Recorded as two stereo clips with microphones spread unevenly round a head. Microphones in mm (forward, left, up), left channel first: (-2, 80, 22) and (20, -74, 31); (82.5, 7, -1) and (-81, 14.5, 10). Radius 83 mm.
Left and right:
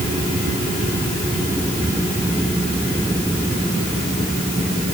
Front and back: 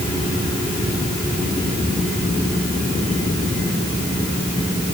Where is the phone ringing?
No phone ringing in this recording.